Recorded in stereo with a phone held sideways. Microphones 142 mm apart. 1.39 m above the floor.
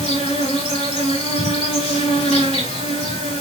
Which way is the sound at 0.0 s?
55° left (ahead or behind).